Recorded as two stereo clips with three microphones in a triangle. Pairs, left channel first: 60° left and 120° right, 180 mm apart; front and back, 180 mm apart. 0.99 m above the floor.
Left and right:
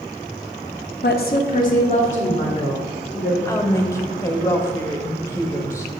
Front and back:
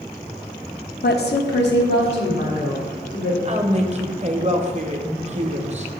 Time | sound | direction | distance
1.0 | a woman speaking | 35° left | 0.7 m
3.5 | a woman speaking | 130° left | 0.7 m